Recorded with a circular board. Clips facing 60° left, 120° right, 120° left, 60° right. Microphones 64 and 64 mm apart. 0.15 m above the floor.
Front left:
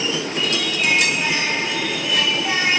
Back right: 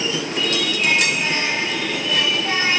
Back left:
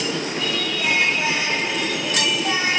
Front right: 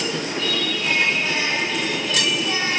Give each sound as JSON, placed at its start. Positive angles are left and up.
{"t": 0.4, "sound": "singing", "azimuth_deg": 140, "distance_m": 7.0}